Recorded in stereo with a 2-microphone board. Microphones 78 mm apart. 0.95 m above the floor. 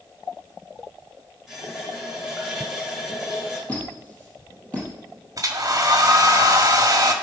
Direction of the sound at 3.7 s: 20° left (ahead or behind).